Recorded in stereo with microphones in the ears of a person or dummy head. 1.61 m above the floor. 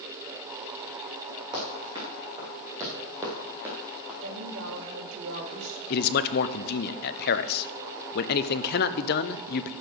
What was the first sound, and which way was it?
Running footsteps, 25° right (ahead or behind).